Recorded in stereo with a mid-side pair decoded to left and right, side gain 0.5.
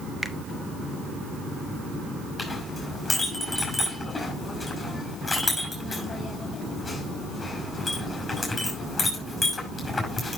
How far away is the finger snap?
About 0.8 m.